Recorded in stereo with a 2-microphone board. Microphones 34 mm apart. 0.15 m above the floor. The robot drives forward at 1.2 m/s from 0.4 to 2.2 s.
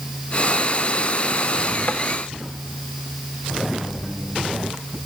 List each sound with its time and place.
1.9 s tapping: 60° left (ahead or behind), 0.7 m; by 2.0 s 50° left (ahead or behind), 0.8 m